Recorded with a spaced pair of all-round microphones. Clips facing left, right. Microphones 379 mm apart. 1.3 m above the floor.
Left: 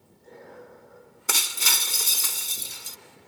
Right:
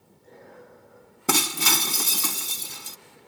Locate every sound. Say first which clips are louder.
1.3 s breaking glass: right 12 dB; 75° right (ahead or behind)